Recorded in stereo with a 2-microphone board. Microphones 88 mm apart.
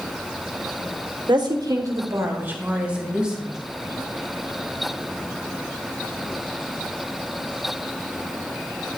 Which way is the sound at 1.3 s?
60° right (ahead or behind).